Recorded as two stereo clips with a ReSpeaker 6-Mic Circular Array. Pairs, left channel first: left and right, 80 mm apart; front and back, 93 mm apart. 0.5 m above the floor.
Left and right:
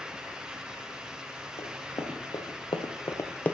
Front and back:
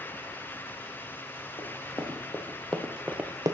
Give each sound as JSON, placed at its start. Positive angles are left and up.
{"t": 1.6, "sound": "running footsteps", "azimuth_deg": 55, "distance_m": 2.0}